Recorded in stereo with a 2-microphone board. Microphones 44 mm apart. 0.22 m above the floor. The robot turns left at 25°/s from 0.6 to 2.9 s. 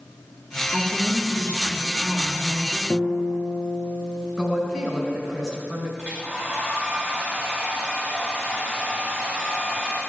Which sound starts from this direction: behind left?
A woman speaking, at 0.7 s.